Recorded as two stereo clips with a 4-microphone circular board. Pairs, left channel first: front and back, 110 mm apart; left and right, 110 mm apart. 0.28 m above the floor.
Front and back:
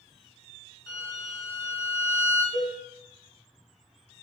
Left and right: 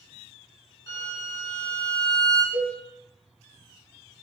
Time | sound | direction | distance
0.9 | a violin | 40° left | 2 m
2.5 | a cowbell | 45° right | 1.4 m